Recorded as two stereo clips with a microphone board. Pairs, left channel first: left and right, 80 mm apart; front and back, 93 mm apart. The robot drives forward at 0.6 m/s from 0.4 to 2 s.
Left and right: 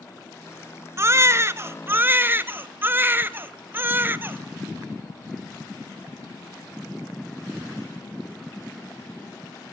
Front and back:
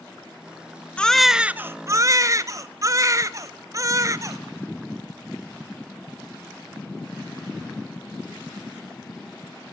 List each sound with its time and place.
1.0 s a baby crying: 70° right, 0.7 m; by 4.4 s 140° right, 0.8 m